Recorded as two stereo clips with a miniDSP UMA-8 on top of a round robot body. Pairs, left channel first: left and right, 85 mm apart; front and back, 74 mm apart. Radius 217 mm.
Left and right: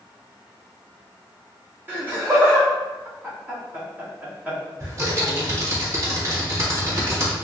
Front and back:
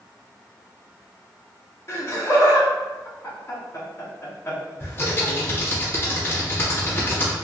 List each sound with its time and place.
1.9 s laughter: 30° right, 1.8 m
4.8 s typing on a keyboard: 50° right, 1.8 m